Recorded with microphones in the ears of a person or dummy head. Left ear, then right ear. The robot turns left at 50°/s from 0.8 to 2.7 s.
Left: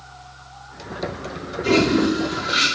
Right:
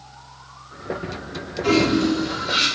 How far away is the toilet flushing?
About 0.7 m.